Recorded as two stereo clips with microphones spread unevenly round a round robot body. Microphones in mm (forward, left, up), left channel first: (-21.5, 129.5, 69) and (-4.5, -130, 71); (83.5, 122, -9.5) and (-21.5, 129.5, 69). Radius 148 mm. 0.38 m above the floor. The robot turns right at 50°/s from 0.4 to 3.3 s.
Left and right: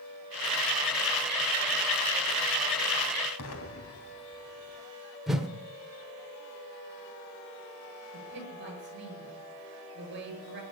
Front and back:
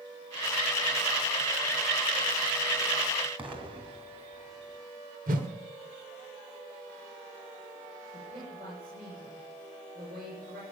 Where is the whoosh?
175° right, 1.7 m.